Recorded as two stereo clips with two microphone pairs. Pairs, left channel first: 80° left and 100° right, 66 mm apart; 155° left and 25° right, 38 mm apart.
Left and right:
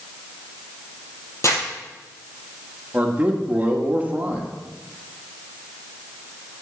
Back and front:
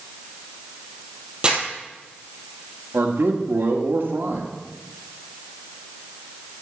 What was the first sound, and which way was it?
Crumpling, 35° left.